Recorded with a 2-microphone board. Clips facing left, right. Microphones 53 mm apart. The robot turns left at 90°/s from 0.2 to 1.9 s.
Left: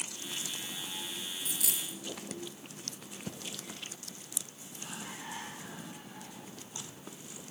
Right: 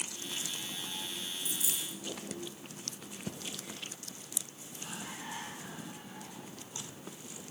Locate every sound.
1.4 s a dropped coin: 65° left (ahead or behind), 0.8 m; by 2.0 s 70° left (ahead or behind), 0.8 m